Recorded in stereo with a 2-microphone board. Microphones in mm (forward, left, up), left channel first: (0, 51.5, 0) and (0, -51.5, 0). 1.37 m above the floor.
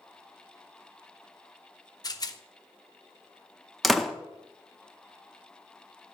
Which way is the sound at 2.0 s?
40° left (ahead or behind).